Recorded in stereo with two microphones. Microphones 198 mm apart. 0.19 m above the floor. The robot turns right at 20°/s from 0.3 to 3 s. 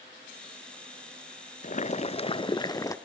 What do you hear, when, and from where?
1.6 s boiling: 40° left (ahead or behind), 0.6 m; by 3.0 s 15° left (ahead or behind), 0.6 m